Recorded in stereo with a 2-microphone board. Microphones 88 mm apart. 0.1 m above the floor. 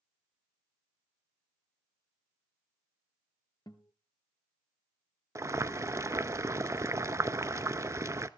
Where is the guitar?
50° left (ahead or behind), 1.1 m.